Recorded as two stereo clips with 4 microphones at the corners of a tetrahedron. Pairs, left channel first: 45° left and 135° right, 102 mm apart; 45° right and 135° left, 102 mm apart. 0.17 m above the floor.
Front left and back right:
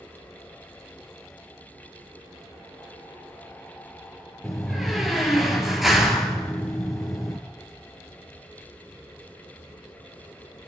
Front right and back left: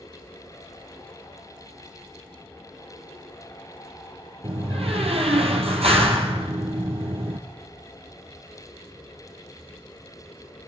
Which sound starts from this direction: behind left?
A door slam, at 4.4 s.